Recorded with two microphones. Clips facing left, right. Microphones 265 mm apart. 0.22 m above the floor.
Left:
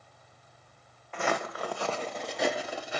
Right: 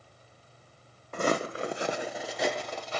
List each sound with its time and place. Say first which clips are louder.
1.1 s footsteps: right 4 dB; 45° right (ahead or behind), 0.7 m; by 3.0 s 15° left (ahead or behind), 1.2 m